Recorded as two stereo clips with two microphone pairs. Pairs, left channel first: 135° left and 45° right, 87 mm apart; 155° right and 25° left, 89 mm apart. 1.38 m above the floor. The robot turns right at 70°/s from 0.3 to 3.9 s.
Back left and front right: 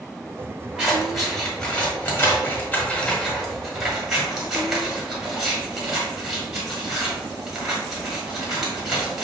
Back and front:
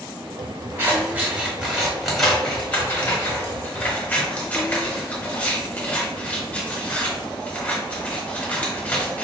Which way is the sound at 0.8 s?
20° left.